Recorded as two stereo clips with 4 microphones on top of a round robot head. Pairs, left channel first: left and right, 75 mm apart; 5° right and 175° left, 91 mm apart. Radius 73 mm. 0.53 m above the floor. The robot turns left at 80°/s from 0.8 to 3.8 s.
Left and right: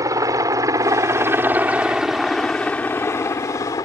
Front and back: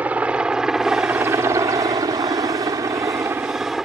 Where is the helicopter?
110° right; by 3.9 s 95° left.